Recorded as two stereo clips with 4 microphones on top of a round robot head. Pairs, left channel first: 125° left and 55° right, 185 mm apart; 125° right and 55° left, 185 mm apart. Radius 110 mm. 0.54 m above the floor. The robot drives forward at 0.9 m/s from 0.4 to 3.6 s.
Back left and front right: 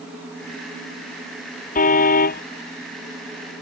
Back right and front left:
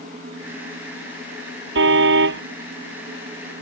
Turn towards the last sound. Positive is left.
turn(degrees=90)